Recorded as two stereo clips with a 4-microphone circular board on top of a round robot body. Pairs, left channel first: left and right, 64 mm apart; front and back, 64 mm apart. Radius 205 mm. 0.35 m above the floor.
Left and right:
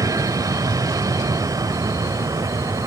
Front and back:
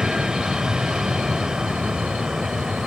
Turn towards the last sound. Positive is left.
turn(degrees=-100)